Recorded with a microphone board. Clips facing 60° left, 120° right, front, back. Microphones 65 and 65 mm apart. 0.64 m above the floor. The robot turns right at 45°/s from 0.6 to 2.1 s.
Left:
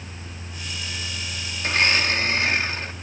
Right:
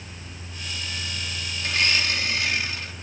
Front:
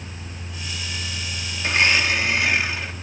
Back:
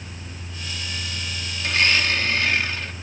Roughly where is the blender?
Ahead left.